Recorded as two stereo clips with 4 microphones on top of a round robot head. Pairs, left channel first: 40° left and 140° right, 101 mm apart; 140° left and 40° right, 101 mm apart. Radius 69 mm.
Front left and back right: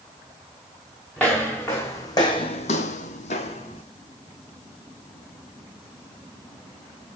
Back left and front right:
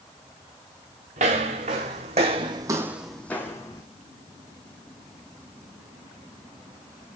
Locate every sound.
1.2 s footsteps: 35° right, 3 m; by 3.8 s 80° left, 2.0 m